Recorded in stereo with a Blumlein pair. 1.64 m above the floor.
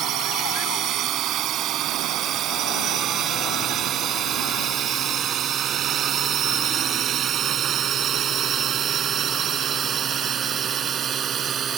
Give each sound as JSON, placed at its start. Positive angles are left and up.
{"t": 0.0, "sound": "a drone", "azimuth_deg": -35}